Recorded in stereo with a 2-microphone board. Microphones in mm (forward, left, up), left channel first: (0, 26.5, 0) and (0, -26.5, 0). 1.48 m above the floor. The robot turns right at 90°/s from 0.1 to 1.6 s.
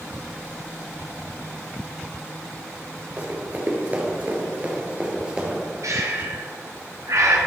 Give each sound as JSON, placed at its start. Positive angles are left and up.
{"t": 3.2, "sound": "running footsteps", "side_deg": -30, "distance_m": 1.8}
{"t": 5.8, "sound": "breathing", "side_deg": -70, "distance_m": 1.1}